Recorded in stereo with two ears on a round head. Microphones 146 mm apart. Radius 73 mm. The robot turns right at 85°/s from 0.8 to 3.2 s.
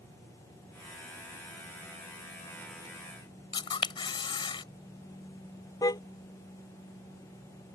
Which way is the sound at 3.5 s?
30° left (ahead or behind).